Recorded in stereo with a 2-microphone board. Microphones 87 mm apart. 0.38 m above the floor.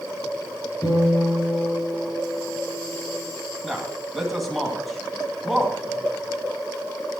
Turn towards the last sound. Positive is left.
turn(degrees=0)  # may be behind; listen again after turning